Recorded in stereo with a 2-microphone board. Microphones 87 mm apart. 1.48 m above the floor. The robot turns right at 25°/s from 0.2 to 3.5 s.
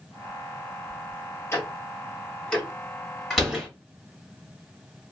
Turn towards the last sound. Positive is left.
turn(degrees=0)  # may be behind; listen again after turning